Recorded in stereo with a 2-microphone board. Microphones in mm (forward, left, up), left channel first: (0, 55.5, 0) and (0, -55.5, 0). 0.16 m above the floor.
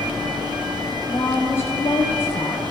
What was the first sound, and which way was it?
A woman speaking, 20° left (ahead or behind).